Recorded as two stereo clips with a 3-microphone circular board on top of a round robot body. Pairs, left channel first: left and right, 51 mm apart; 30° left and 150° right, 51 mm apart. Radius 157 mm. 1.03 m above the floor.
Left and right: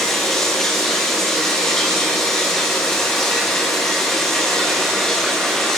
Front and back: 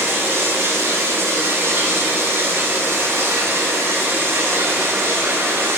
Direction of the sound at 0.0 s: 175° left.